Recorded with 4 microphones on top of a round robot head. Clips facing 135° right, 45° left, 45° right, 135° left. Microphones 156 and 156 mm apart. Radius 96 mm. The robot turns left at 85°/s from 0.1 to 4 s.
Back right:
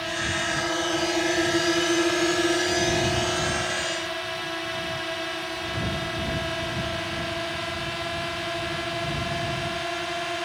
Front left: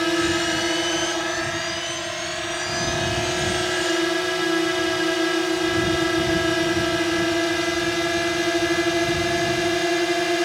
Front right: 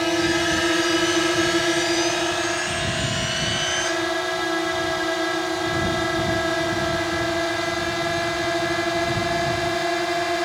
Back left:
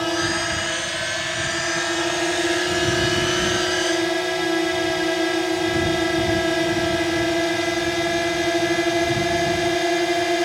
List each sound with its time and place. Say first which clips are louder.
0.0 s a drone: front left 9 dB, front right 3 dB; 35° left; by 10.4 s 70° left